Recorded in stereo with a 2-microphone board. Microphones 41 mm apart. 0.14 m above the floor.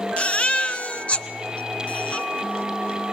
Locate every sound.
0.2 s a baby crying: 35° left (ahead or behind), 1.2 m